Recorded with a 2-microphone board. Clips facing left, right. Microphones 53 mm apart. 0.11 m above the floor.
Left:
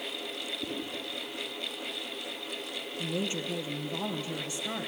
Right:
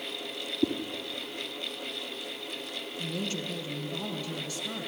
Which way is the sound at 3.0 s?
20° left (ahead or behind).